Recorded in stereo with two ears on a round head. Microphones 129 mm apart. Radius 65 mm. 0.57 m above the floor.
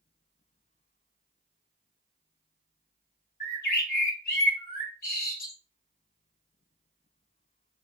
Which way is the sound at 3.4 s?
65° left (ahead or behind).